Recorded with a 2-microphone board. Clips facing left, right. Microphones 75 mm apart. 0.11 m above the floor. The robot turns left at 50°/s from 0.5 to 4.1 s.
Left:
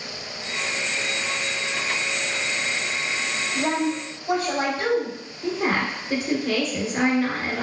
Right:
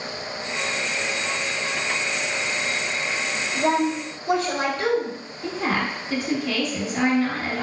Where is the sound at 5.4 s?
25° left (ahead or behind), 1.5 m.